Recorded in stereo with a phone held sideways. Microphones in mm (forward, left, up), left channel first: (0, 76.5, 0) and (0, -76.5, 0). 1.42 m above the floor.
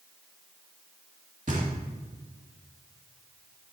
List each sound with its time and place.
1.5 s knocking: 55° right (ahead or behind), 1.8 m